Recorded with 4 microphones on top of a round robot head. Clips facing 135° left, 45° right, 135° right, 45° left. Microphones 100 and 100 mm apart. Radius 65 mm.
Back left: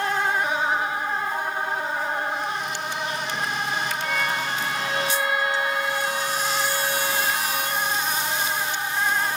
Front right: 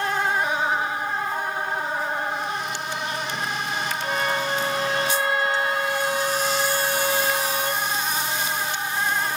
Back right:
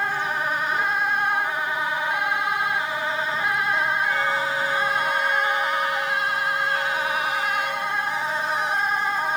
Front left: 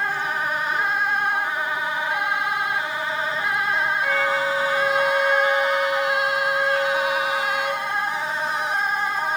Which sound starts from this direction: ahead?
A violin, at 4.0 s.